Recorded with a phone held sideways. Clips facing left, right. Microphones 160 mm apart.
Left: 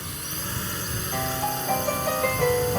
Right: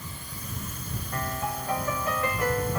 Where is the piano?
20° left (ahead or behind).